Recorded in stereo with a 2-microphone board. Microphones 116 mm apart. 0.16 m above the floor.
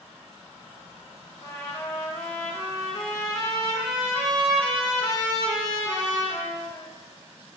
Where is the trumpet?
35° left (ahead or behind), 1.0 m.